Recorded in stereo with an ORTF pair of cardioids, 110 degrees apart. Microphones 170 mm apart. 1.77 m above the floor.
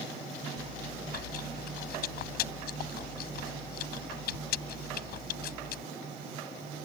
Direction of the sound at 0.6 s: 70° left.